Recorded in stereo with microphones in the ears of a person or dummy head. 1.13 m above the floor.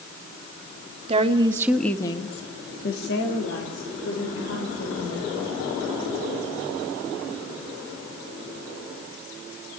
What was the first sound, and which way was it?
A woman speaking, 35° right (ahead or behind).